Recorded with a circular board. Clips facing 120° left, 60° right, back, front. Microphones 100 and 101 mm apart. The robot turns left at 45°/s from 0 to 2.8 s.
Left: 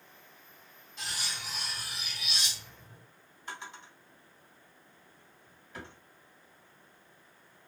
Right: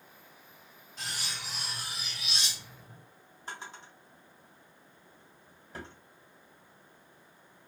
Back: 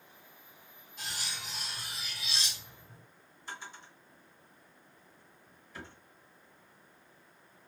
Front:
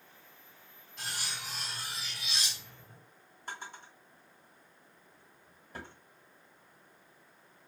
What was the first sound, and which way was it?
Cutlery clinking, 15° right.